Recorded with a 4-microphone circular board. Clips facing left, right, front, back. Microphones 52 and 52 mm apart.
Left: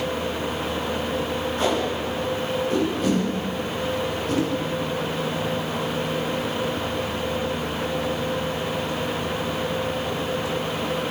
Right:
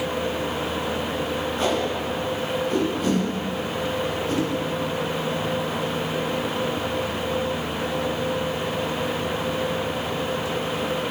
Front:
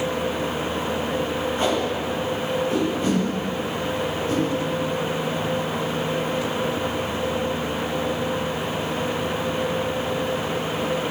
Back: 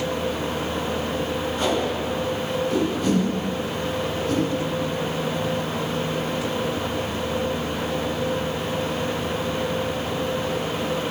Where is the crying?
No crying in this recording.